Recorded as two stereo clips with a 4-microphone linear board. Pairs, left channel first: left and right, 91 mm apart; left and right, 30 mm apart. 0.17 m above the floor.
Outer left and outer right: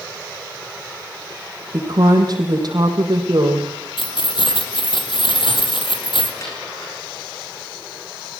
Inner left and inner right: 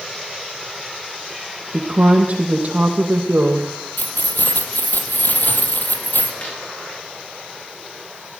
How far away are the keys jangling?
About 4 m.